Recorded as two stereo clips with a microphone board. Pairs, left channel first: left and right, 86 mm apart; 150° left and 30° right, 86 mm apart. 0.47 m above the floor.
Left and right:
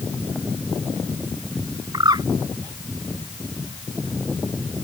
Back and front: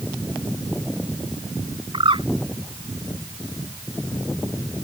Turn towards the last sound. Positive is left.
turn(degrees=-50)